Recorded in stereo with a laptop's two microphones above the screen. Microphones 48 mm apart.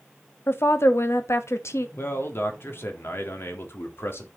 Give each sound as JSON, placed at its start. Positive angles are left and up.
{"t": 0.5, "sound": "a woman speaking", "side_deg": 60, "distance_m": 1.4}
{"t": 2.0, "sound": "a man speaking", "side_deg": 65, "distance_m": 1.9}